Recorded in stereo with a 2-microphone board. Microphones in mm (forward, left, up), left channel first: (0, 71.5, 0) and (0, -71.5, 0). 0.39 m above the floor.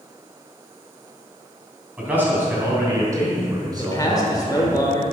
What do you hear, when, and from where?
2.0 s a man speaking: 10° right (ahead or behind), 3 m; by 4.8 s 35° right (ahead or behind), 4 m
3.8 s a man speaking: 25° left (ahead or behind), 1.4 m